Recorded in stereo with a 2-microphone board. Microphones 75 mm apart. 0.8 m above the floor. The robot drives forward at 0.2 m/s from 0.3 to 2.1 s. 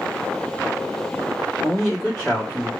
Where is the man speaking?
5° right (ahead or behind), 1.4 m.